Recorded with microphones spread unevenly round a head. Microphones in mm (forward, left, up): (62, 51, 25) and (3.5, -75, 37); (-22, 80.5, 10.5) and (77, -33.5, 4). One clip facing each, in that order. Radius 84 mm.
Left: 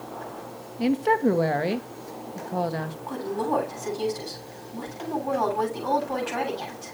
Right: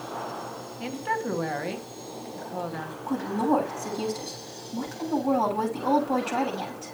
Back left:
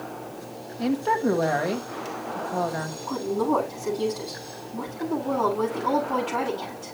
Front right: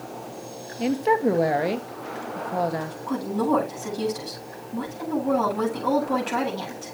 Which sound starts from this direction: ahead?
A woman speaking, at 0.8 s.